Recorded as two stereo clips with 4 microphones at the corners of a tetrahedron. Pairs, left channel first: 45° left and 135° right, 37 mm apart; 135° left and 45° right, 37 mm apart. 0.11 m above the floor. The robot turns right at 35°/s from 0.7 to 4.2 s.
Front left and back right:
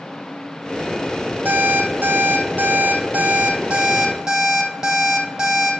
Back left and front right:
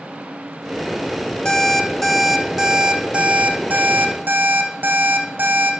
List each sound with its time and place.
1.4 s an alarm clock: 170° right, 2.5 m; by 5.7 s 75° right, 2.5 m